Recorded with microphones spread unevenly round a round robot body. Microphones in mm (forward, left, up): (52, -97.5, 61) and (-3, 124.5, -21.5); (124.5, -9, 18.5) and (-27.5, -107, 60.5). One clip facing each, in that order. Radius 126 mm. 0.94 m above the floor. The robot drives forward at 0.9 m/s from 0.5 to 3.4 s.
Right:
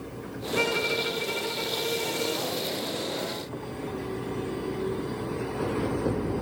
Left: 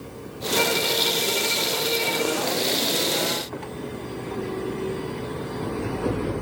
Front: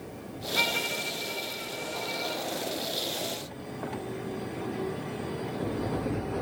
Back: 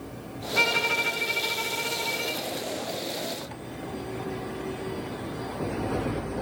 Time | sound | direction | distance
0.6 | a violin | 125° right | 0.5 m